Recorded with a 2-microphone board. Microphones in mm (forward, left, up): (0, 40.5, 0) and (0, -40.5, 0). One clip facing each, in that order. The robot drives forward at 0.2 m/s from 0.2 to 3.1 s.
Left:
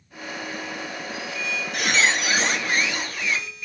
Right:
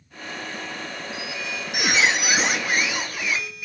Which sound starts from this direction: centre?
A squeak, at 1.1 s.